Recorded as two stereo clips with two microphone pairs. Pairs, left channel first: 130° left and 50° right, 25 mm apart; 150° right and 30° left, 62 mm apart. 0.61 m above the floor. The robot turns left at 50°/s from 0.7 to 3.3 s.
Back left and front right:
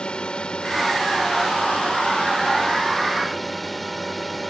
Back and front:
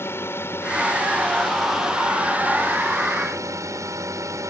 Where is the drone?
175° left; by 4.5 s 45° left.